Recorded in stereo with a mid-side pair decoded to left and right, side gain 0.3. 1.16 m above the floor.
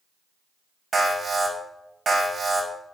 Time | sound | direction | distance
0.9 | an alarm | 55° right | 5.5 m